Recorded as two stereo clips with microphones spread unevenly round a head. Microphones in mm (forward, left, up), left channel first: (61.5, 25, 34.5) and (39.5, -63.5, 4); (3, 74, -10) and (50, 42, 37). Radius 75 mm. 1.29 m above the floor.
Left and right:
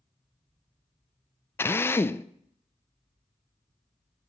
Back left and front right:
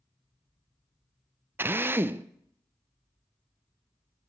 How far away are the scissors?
No scissors in this recording.